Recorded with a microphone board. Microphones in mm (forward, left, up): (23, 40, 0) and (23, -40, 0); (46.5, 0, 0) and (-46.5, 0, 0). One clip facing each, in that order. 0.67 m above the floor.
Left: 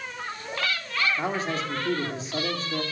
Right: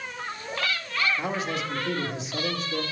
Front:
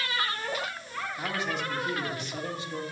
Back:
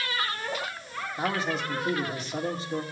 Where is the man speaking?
135° left, 1.8 m.